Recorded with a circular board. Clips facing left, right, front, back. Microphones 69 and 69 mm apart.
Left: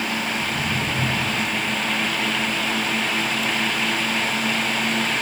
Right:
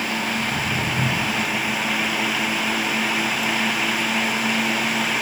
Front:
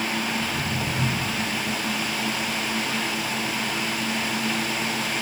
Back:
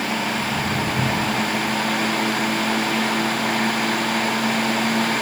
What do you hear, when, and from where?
0.4 s footsteps: 140° right, 10 m; by 5.2 s 125° right, 8.5 m